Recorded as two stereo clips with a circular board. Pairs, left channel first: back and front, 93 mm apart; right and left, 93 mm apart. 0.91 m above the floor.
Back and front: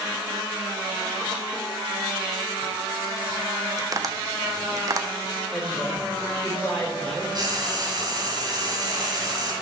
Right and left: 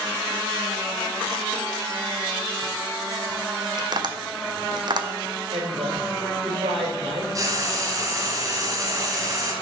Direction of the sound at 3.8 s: 50° left.